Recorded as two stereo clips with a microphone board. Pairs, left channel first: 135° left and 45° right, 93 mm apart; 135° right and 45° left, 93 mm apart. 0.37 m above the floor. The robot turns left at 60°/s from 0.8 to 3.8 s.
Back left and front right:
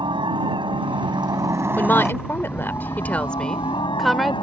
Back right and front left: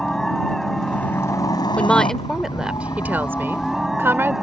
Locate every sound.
0.0 s a helicopter: 50° right; by 4.4 s 130° left
1.8 s a woman speaking: 165° left; by 4.4 s 45° left